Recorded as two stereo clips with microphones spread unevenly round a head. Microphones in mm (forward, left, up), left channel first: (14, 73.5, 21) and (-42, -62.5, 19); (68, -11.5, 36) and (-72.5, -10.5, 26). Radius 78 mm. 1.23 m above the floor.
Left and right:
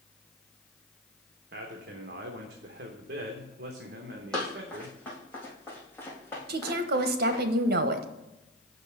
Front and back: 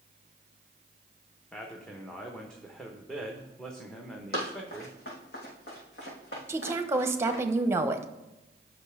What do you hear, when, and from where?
1.5 s a man speaking: 85° right, 1.0 m
4.3 s running footsteps: 20° right, 3.5 m; by 7.4 s 5° right, 5 m
6.5 s a woman speaking: 110° right, 1.0 m